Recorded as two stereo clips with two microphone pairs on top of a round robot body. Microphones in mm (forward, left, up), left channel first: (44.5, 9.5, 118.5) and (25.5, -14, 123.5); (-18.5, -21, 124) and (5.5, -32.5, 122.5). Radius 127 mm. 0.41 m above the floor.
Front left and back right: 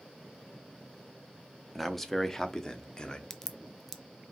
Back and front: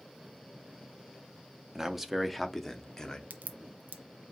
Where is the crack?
25° right, 0.5 m.